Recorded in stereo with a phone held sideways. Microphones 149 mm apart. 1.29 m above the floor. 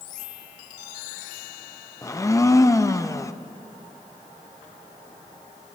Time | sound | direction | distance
2.0 | a blender | 20° left (ahead or behind) | 0.5 m